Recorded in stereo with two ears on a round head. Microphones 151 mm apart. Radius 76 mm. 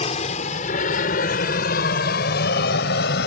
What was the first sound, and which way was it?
An aircraft, 35° left (ahead or behind).